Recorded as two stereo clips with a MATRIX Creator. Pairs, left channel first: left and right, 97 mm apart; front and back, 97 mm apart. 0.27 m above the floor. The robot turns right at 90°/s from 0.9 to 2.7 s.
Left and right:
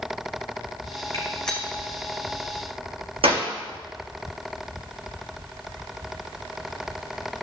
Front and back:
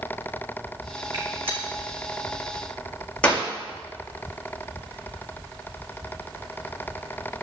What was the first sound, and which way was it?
A gunshot, 145° left.